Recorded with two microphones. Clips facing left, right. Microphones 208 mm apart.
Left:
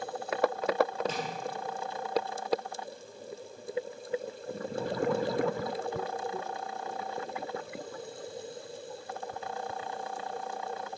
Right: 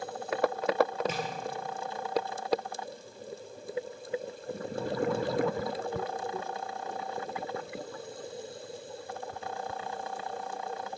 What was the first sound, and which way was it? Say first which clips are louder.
Tapping: right 1 dB; 10° right (ahead or behind).